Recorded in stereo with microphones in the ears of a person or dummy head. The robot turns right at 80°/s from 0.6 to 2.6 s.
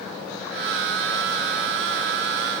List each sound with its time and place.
Only background noise.